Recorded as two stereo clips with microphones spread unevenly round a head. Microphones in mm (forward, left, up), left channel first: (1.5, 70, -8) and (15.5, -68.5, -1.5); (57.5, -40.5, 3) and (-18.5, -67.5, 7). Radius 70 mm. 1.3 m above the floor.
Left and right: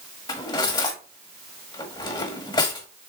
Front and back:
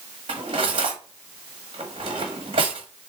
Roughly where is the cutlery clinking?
Behind left.